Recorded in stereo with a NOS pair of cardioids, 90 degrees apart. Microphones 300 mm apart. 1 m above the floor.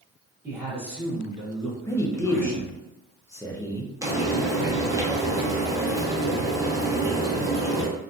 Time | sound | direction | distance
0.4 | a man speaking | 20° right | 1.4 m
1.9 | a man speaking | 10° left | 0.7 m
4.0 | frying | 10° right | 1.0 m